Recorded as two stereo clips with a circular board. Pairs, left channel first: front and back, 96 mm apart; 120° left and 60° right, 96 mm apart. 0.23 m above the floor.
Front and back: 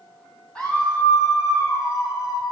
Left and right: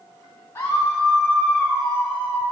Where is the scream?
75° left, 1.4 m; by 2.4 s 25° left, 2 m.